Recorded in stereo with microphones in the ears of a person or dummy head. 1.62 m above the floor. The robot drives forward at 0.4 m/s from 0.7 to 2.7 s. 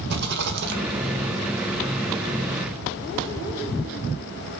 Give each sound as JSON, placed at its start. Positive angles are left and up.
{"t": 0.1, "sound": "a rattle", "side_deg": -65, "distance_m": 1.9}